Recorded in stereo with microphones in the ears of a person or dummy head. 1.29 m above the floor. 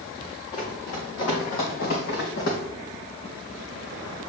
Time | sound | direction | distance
0.5 | running footsteps | 45° left (ahead or behind) | 3.5 m